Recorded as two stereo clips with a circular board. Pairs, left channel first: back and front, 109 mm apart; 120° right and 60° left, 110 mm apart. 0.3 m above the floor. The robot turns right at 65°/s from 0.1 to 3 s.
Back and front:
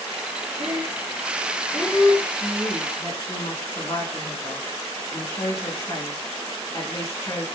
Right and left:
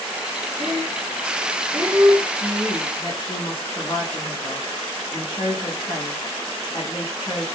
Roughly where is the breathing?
Ahead left.